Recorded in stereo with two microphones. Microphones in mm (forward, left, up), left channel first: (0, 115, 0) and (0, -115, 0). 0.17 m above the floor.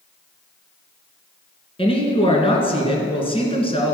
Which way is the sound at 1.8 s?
25° left (ahead or behind).